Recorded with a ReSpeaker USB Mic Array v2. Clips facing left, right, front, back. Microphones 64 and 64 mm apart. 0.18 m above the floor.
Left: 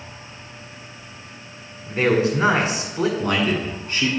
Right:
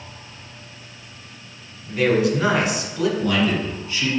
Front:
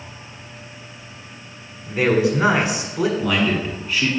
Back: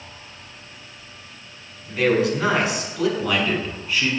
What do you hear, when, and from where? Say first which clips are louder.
1.9 s a man speaking: even, front 1 dB; 55° left, 1.3 m
3.2 s a man speaking: right 1 dB, front 2 dB; 90° left, 1.5 m